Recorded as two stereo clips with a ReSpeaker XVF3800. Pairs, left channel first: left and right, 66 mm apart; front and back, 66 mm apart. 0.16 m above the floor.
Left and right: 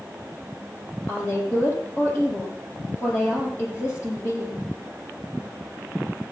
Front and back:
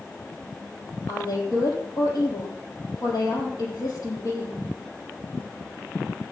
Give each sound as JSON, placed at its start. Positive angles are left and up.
{"t": 1.1, "sound": "a woman speaking", "azimuth_deg": 35, "distance_m": 5.5}